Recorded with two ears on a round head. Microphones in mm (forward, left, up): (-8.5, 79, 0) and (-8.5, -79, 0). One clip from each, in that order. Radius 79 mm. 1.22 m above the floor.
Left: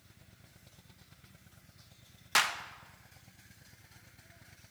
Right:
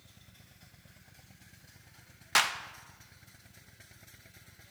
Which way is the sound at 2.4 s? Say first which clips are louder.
Right 1 dB; centre (ahead or behind).